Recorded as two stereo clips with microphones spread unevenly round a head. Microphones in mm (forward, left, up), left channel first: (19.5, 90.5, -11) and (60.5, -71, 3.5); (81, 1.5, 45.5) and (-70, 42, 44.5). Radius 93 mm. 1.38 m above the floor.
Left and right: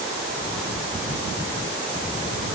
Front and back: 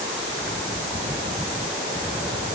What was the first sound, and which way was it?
Only background noise.